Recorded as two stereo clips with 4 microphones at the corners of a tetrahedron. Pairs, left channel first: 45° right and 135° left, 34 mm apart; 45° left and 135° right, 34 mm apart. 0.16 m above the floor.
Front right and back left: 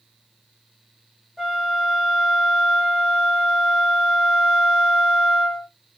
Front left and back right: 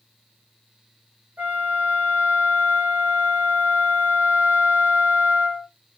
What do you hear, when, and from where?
1.4 s a flute: 150° right, 3.5 m